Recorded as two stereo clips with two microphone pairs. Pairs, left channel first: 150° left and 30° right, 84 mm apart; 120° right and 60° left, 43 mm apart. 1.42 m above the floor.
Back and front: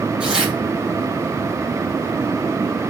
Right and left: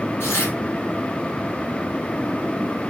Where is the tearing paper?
110° right, 5 m.